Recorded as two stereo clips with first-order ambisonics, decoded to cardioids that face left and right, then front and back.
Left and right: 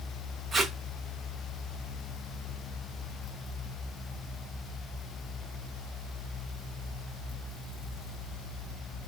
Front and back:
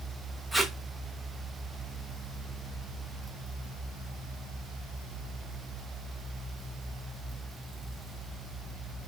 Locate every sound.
0.5 s tape being pulled: 80° right, 0.6 m